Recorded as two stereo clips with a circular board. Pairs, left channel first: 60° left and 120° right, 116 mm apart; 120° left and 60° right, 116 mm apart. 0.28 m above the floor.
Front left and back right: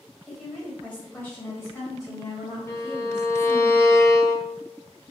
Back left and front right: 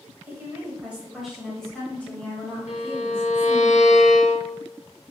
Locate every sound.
0.3 s a woman speaking: 30° right, 1.4 m; by 3.7 s 80° left, 1.9 m
2.7 s a violin: 125° left, 0.8 m